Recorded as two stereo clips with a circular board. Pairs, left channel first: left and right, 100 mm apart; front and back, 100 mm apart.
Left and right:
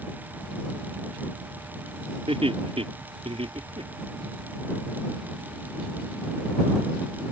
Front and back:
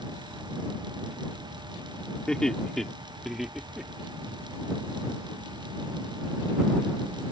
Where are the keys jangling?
I don't hear keys jangling.